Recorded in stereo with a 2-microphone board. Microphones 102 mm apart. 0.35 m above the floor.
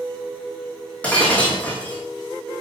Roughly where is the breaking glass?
Centre.